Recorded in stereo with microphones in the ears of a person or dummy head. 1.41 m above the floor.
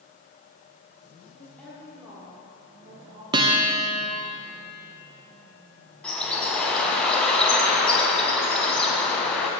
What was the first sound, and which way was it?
A woman speaking, 20° left (ahead or behind).